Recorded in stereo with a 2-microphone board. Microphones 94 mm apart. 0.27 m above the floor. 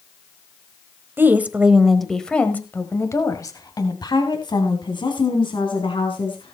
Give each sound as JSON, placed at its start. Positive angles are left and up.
{"t": 1.2, "sound": "a woman speaking", "side_deg": -25, "distance_m": 1.4}